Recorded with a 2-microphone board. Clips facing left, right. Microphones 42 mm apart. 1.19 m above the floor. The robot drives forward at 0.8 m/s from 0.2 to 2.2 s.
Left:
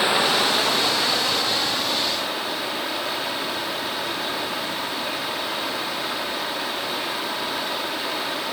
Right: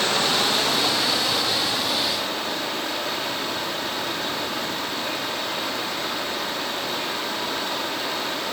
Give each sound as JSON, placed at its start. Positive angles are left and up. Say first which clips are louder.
{"t": 0.0, "sound": "running water", "louder": "left 2 dB", "side_deg": 15, "distance_m": 1.1}